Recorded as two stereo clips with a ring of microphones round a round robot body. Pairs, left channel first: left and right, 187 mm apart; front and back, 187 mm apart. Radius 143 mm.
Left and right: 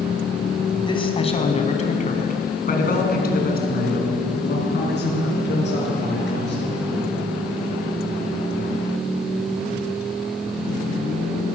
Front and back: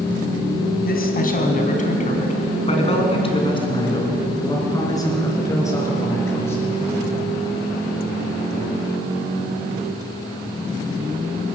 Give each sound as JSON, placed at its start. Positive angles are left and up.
{"t": 0.8, "sound": "a man speaking", "azimuth_deg": 30, "distance_m": 3.5}